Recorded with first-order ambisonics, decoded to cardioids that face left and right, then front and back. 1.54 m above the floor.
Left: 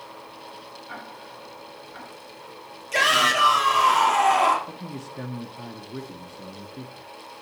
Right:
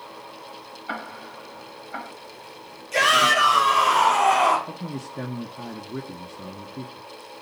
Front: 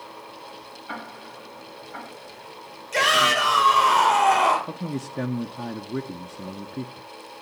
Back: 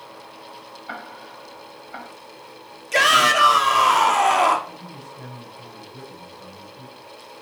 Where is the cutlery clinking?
No cutlery clinking in this recording.